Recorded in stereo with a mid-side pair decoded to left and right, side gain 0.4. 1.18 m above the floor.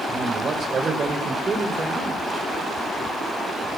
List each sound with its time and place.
0.1 s a man speaking: 55° right, 5 m; by 2.2 s 35° right, 4 m